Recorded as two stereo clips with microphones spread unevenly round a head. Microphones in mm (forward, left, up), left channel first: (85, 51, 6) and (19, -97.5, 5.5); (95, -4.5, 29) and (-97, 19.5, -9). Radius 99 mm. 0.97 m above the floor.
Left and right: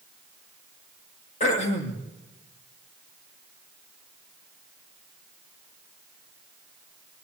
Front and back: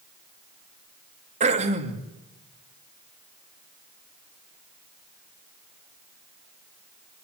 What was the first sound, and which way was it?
Throat clearing, 120° left.